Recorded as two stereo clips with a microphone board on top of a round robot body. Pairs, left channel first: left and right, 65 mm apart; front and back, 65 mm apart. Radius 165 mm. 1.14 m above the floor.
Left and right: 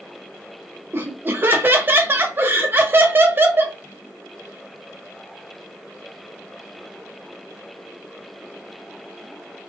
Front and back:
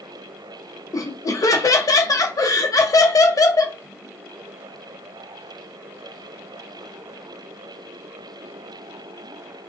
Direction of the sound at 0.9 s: 30° right.